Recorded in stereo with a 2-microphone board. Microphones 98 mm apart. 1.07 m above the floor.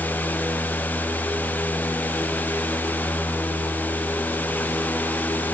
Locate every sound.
Only background noise.